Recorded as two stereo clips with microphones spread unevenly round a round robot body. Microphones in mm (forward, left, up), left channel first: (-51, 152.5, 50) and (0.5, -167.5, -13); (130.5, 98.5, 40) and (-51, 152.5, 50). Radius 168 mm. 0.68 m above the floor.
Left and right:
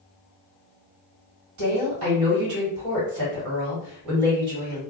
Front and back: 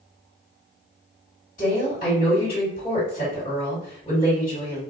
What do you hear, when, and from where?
1.6 s a woman speaking: 65° right, 1.6 m